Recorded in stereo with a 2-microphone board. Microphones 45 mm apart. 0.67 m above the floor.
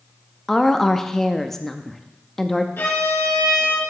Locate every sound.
0.5 s a woman speaking: 5° left (ahead or behind), 0.5 m
2.8 s a violin: 55° left (ahead or behind), 2.5 m